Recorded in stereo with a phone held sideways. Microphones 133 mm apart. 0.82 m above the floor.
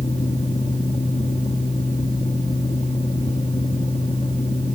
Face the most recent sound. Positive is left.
turn(degrees=65)  # may be behind; listen again after turning